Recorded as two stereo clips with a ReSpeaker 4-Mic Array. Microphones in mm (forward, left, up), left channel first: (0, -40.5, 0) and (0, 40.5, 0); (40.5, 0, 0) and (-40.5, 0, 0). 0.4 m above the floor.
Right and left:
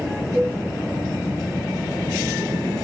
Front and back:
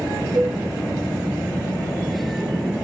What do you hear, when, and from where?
0.3 s a cowbell: 160° left, 2.5 m